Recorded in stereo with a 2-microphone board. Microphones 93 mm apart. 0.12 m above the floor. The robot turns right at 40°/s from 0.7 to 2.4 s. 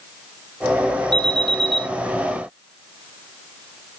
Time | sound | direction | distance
1.1 | an alarm | 60° right (ahead or behind) | 6 m